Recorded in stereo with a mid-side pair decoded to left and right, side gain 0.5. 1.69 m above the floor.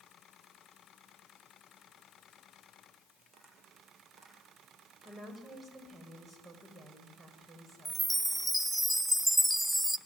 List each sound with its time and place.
3.2 s tapping: 40° right, 8.5 m
5.0 s a woman speaking: 25° right, 8.5 m
7.8 s a chime: 10° right, 1.3 m